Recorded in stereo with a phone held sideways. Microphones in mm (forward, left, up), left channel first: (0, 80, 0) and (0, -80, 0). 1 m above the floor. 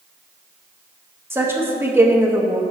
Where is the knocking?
I don't hear knocking.